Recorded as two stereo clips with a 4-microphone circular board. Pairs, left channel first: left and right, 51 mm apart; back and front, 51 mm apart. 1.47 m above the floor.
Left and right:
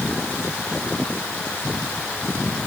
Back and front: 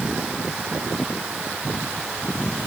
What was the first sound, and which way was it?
Only background noise.